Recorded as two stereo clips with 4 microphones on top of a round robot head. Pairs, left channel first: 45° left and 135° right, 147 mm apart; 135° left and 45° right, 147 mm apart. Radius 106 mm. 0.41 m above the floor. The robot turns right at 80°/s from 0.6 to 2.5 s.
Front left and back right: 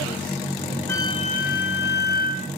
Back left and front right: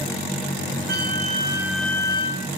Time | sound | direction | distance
0.9 | a flute | 30° right | 1.6 m